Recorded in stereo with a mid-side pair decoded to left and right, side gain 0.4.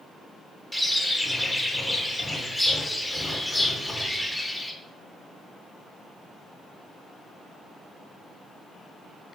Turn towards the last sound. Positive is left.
turn(degrees=5)